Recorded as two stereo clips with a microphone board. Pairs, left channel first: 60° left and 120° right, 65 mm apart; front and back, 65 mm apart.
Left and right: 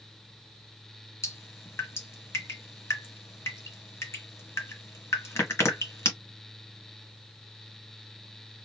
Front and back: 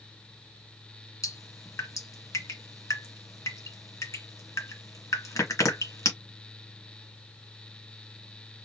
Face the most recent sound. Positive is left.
turn(degrees=25)